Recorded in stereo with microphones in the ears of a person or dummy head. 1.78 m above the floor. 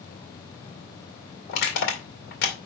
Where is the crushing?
45° left (ahead or behind), 2 m.